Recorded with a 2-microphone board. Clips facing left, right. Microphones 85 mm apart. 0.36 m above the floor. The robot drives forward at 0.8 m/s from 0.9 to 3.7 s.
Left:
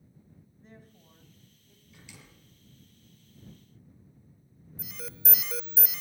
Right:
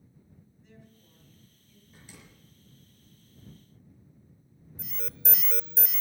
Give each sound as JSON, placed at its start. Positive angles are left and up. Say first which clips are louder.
{"t": 0.6, "sound": "a woman speaking", "louder": "left 3 dB", "side_deg": 40, "distance_m": 3.0}
{"t": 1.9, "sound": "a door slam", "louder": "even", "side_deg": -40, "distance_m": 5.0}
{"t": 4.8, "sound": "an alarm", "louder": "even", "side_deg": 0, "distance_m": 0.5}